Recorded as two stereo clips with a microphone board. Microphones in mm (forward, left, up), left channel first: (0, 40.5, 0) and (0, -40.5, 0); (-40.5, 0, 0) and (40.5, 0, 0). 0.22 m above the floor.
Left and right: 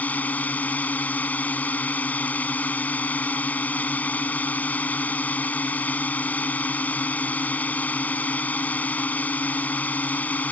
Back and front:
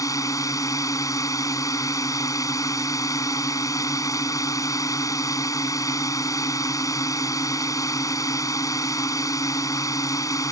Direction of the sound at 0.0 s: 155° left.